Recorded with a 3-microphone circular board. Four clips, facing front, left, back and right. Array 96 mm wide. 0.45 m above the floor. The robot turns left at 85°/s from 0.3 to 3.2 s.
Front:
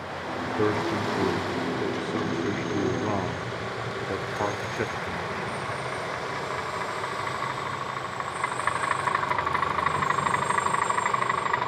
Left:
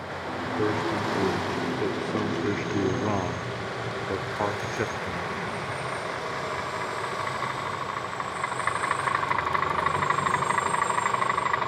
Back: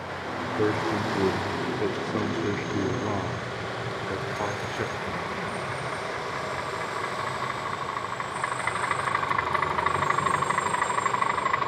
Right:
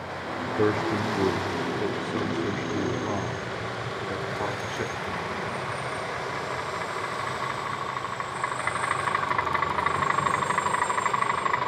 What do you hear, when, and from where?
0.6 s a man speaking: 80° right, 1.0 m; by 5.3 s 55° left, 1.0 m